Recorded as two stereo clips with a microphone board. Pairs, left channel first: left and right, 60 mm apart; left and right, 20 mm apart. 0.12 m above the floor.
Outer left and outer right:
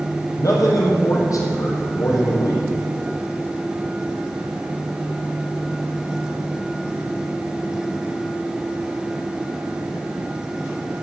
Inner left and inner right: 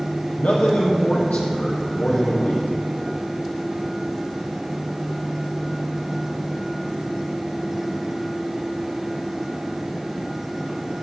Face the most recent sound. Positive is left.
turn(degrees=65)  # may be behind; listen again after turning